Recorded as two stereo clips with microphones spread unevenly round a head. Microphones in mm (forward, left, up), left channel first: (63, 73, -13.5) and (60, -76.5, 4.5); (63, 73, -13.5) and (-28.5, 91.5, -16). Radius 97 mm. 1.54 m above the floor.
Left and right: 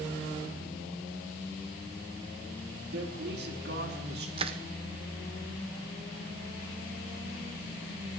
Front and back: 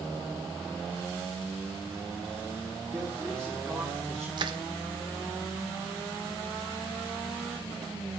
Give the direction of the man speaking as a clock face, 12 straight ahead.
3 o'clock.